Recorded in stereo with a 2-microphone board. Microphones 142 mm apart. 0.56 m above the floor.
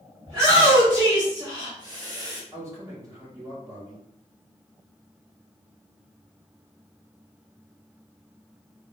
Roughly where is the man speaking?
Right.